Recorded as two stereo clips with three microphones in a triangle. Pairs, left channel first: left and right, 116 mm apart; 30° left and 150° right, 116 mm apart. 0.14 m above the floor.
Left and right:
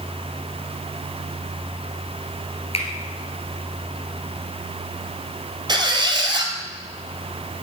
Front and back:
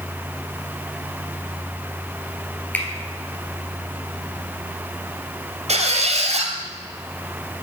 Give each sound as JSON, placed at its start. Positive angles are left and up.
{"t": 2.7, "sound": "a finger snap", "azimuth_deg": 105, "distance_m": 2.5}
{"t": 5.7, "sound": "a squeak", "azimuth_deg": -140, "distance_m": 2.0}